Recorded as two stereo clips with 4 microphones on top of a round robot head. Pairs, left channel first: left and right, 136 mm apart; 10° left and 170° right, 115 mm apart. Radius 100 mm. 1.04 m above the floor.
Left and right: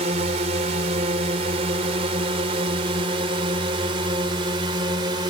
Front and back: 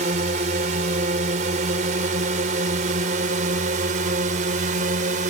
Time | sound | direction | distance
0.0 | a drone | 140° right | ?